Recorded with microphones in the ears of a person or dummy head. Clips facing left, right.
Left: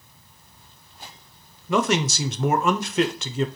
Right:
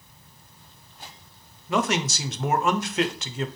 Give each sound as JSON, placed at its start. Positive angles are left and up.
{"t": 1.7, "sound": "a man speaking", "side_deg": 85, "distance_m": 0.6}